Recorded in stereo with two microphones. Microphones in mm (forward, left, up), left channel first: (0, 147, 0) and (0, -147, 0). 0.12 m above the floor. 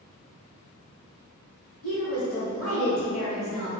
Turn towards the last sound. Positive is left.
turn(degrees=-15)  # may be behind; listen again after turning